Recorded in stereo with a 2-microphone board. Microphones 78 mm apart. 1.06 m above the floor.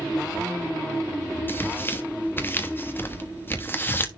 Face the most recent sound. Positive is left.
turn(degrees=30)  # may be behind; listen again after turning